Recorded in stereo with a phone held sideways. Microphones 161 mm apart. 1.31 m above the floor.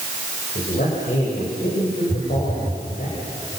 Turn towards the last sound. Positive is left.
turn(degrees=-35)  # may be behind; listen again after turning